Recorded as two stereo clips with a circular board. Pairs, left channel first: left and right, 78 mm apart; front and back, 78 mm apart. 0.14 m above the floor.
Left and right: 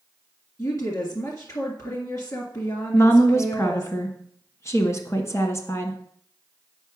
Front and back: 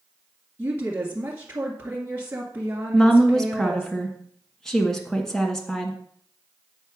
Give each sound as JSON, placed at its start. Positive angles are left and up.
{"t": 0.6, "sound": "a woman speaking", "azimuth_deg": 120, "distance_m": 1.9}
{"t": 2.9, "sound": "a woman speaking", "azimuth_deg": 80, "distance_m": 1.5}